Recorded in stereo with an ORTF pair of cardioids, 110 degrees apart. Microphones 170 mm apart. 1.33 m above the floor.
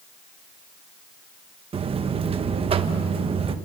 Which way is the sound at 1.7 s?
35° right.